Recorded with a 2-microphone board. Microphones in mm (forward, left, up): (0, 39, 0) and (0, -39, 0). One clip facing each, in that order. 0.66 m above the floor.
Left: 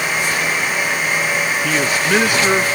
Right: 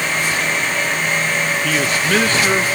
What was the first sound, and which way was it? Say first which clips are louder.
A man speaking: left 1 dB; 10° left (ahead or behind).